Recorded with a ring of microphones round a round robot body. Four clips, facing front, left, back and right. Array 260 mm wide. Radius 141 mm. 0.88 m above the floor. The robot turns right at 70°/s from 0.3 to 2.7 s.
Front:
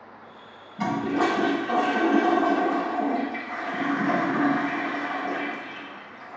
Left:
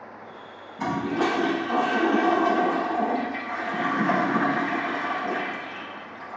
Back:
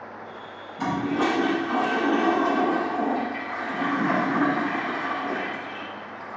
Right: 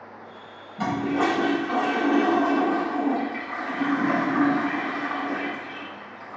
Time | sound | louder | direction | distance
0.8 | a toilet flushing | right 1 dB, even | 70° right | 4.5 m